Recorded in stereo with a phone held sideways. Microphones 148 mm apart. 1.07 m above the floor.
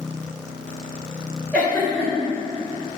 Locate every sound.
1.5 s a giggle: 10° left (ahead or behind), 3 m